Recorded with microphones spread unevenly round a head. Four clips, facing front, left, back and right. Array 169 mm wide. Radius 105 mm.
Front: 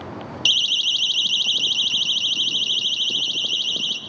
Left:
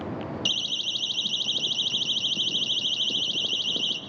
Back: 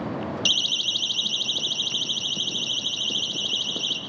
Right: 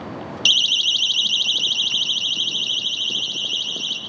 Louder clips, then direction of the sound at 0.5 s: Right 8 dB, front 3 dB; 55° right.